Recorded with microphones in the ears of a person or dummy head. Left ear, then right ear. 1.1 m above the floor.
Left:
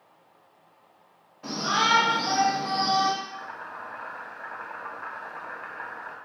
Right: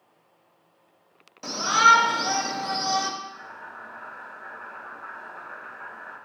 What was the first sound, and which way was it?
A shout, 75° right (ahead or behind).